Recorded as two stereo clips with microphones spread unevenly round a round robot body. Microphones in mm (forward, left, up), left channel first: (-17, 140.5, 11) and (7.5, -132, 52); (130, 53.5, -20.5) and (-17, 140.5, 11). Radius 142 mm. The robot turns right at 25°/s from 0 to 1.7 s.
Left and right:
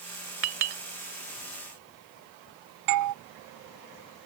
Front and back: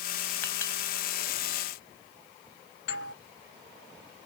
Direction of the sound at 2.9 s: 70° right.